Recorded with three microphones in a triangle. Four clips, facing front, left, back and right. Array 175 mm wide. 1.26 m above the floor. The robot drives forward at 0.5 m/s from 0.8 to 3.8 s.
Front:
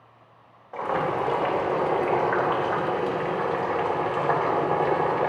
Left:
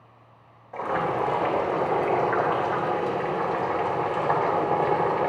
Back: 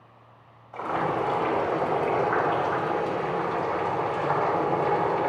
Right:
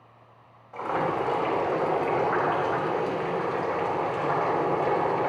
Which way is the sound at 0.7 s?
20° left.